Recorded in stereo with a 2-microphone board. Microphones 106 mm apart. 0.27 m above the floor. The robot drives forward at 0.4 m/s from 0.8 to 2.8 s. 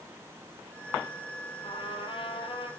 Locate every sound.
1.6 s a trumpet: 55° left (ahead or behind), 7.5 m